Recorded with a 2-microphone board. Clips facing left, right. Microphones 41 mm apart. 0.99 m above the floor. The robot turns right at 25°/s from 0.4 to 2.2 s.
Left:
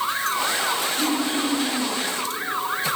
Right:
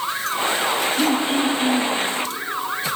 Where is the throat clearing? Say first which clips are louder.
Right 4 dB; 65° right (ahead or behind), 3.5 m; by 2.0 s 40° right (ahead or behind), 3.5 m.